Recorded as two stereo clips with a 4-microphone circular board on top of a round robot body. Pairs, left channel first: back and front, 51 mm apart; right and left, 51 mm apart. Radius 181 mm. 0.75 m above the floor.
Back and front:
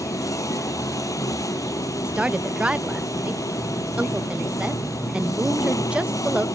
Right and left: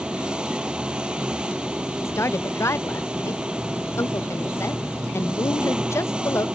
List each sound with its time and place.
0.0 s an engine running: 165° left
2.0 s a woman speaking: 65° right